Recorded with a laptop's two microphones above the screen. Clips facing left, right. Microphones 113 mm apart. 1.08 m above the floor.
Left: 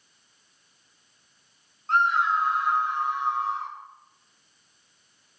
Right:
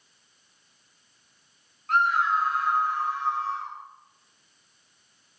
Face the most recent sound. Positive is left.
turn(degrees=15)  # may be behind; listen again after turning